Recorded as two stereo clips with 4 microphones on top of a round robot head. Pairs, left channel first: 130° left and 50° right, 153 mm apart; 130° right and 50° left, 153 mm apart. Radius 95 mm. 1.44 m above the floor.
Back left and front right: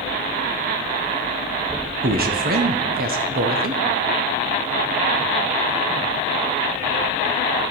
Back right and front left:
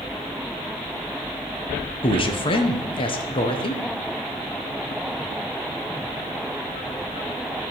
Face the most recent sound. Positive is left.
turn(degrees=-75)